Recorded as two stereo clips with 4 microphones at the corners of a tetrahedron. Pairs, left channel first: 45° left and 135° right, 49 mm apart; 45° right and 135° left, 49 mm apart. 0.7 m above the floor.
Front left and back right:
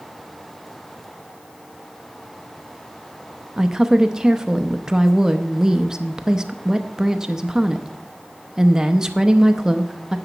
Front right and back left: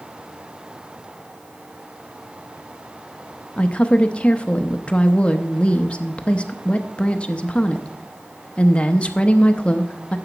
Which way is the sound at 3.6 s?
70° right.